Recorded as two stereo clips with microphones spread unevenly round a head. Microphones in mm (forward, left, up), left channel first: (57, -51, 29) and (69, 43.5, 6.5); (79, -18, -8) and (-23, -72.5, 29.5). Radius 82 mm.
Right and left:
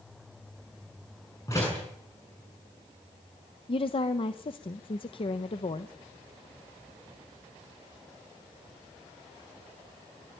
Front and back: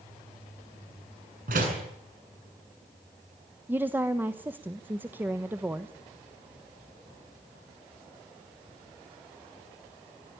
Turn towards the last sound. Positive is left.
turn(degrees=-70)